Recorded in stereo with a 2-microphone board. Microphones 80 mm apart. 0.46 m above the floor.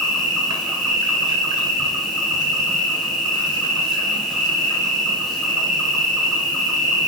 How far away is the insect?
About 3 m.